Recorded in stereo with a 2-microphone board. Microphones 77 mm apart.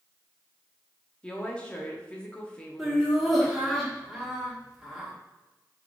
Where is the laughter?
5° right (ahead or behind), 1.1 m.